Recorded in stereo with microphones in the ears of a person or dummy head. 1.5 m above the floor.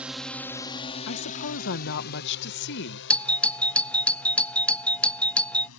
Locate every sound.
0.0 s a drone: 5° right (ahead or behind); by 5.8 s 80° left
1.1 s a woman speaking: 65° left (ahead or behind)
3.1 s a doorbell: 5° left (ahead or behind)